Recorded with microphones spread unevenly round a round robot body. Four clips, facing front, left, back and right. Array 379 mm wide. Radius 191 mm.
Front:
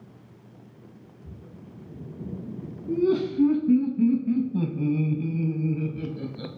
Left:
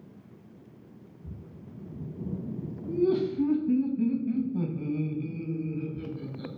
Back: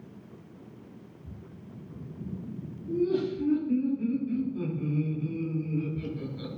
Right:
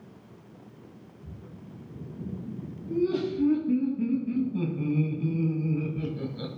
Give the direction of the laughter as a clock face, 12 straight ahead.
11 o'clock.